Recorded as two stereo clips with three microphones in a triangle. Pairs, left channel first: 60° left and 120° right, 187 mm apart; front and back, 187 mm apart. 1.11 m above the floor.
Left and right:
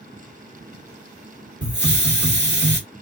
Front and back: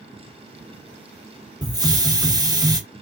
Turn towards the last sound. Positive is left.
turn(degrees=-110)